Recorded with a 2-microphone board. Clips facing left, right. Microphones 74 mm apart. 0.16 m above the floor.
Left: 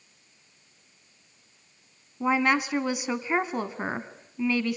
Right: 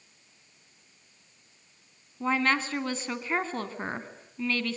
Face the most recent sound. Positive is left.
turn(degrees=15)  # may be behind; listen again after turning